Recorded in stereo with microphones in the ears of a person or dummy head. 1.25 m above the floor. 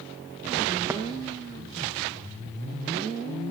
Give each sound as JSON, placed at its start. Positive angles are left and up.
{"t": 0.9, "sound": "tapping", "side_deg": -15, "distance_m": 0.5}